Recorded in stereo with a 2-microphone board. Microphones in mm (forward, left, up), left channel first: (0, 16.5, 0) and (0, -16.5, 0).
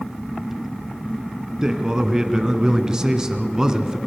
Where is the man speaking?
20° right (ahead or behind), 1.4 m.